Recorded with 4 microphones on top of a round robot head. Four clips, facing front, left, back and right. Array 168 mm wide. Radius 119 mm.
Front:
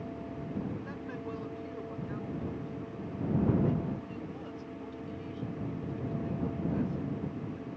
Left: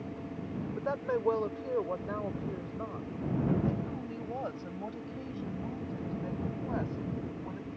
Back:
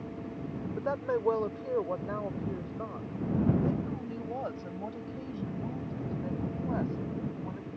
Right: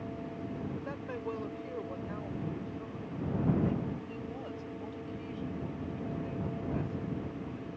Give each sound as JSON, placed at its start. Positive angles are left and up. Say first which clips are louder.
{"t": 0.8, "sound": "a woman speaking", "louder": "left 7 dB, back 10 dB", "azimuth_deg": 145}